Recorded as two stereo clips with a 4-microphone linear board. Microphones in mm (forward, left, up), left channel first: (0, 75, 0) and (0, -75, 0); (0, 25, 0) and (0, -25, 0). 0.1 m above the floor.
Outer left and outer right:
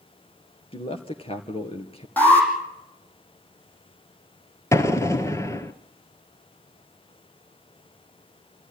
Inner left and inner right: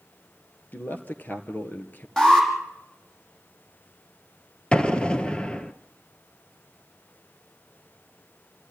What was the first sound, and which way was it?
A man speaking, 35° left (ahead or behind).